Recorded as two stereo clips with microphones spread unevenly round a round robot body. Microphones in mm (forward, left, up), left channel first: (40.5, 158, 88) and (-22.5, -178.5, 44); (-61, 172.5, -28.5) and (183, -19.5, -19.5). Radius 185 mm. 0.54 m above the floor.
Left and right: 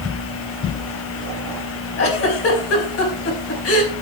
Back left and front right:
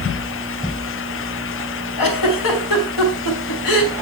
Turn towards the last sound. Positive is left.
turn(degrees=135)